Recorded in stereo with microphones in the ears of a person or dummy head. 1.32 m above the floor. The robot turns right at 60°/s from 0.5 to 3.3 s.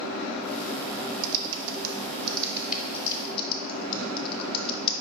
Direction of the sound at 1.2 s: 75° right (ahead or behind).